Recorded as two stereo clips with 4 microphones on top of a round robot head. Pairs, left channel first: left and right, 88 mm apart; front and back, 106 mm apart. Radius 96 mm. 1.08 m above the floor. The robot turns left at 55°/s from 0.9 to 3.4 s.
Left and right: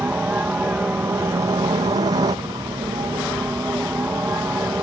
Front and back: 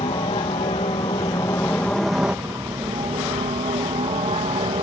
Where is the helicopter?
25° right; by 4.8 s 155° right.